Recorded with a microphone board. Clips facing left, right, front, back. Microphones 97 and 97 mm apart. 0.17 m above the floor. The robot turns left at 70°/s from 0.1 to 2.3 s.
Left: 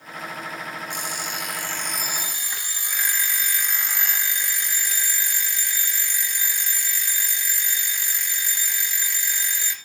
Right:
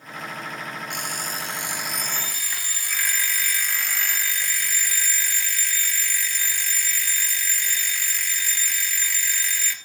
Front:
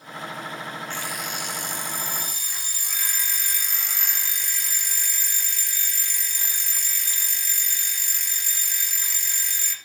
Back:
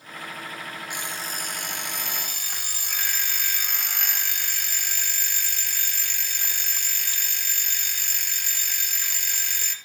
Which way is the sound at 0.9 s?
105° right.